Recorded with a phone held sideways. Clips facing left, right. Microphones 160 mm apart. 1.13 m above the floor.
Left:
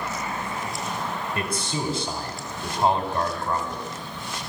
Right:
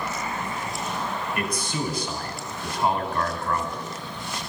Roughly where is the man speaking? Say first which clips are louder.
Even; left.